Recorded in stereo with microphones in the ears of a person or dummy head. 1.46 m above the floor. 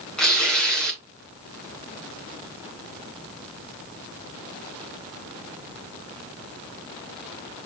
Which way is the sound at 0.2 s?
10° left (ahead or behind).